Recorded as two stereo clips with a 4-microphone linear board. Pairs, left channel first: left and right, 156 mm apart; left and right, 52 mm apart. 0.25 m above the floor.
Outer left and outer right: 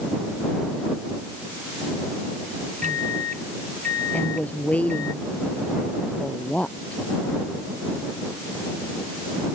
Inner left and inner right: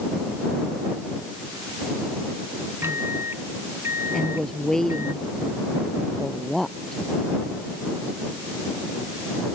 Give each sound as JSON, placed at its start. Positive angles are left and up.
{"t": 2.8, "sound": "a microwave", "side_deg": -60}
{"t": 4.1, "sound": "a woman speaking", "side_deg": 10}